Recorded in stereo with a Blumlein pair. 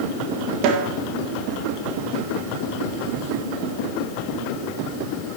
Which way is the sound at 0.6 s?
40° right.